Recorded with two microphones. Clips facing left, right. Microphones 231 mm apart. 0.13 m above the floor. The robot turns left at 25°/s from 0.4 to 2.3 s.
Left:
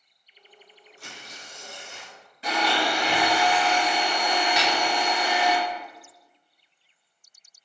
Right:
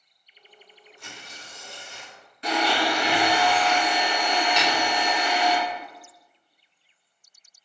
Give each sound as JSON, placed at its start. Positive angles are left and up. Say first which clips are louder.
{"t": 1.0, "sound": "tearing paper", "louder": "even", "azimuth_deg": 145, "distance_m": 0.9}
{"t": 2.4, "sound": "a blender", "louder": "right 2 dB", "side_deg": 5, "distance_m": 1.6}
{"t": 4.6, "sound": "a snare drum", "louder": "right 1 dB", "side_deg": 10, "distance_m": 1.1}